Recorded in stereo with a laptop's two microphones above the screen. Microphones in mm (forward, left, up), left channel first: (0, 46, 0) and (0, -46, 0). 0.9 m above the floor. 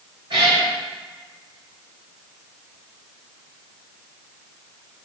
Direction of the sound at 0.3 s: 65° right (ahead or behind).